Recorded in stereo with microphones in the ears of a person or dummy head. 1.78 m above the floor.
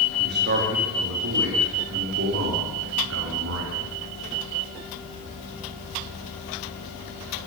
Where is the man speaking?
45° right (ahead or behind), 4.5 m; by 4.0 s 75° right (ahead or behind), 6.5 m.